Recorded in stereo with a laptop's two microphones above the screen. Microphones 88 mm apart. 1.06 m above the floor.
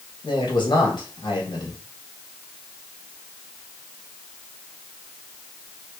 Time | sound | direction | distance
0.2 | a man speaking | 60° left (ahead or behind) | 1.9 m